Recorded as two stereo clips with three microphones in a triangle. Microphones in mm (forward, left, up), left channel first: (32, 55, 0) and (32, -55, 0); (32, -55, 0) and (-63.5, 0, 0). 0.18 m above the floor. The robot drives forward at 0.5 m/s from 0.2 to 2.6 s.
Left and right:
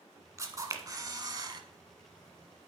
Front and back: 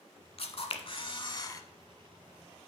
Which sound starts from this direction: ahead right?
A camera shutter, at 0.4 s.